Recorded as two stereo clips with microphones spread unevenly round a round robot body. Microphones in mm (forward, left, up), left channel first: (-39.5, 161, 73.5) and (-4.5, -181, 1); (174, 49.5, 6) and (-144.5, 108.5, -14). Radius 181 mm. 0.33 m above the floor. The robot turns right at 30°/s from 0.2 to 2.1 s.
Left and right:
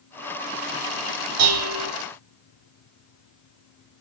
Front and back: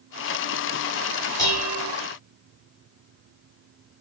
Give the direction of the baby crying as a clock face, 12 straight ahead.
No baby crying in this recording.